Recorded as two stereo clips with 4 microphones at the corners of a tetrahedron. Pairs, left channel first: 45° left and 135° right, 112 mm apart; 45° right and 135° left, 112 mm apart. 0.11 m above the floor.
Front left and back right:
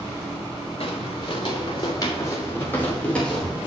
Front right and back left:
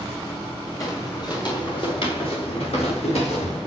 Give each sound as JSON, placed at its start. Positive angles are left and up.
{"t": 0.8, "sound": "footsteps", "azimuth_deg": 10, "distance_m": 4.0}